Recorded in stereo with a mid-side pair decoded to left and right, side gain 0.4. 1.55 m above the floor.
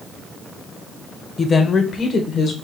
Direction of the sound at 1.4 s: 40° left.